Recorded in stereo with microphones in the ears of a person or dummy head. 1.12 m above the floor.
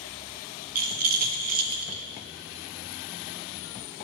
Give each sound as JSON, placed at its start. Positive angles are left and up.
{"t": 0.8, "sound": "a rattle", "side_deg": -50, "distance_m": 1.1}